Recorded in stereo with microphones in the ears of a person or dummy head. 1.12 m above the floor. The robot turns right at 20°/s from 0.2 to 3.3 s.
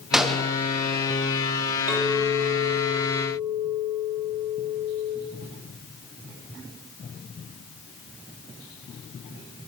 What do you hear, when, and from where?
0.1 s a gunshot: centre (ahead or behind), 0.7 m; by 0.6 s 5° left (ahead or behind), 0.7 m
1.9 s a clink: 10° right (ahead or behind), 2.5 m; by 5.2 s 40° right (ahead or behind), 2.5 m